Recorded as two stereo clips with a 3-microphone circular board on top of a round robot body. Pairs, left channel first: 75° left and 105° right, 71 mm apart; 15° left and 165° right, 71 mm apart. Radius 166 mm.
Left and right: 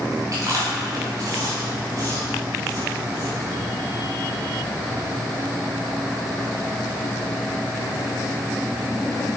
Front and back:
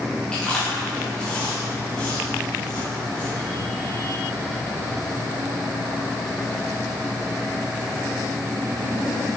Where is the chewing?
65° right, 2 m.